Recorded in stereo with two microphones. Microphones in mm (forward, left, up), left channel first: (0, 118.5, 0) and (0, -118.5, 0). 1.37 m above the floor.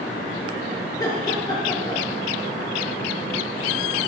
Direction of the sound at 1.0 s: 15° left (ahead or behind).